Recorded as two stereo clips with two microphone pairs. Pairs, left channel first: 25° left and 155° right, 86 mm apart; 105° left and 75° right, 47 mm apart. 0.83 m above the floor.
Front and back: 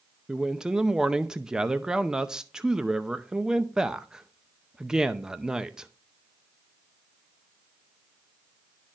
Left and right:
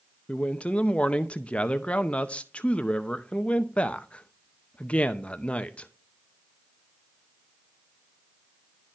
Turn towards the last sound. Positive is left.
turn(degrees=135)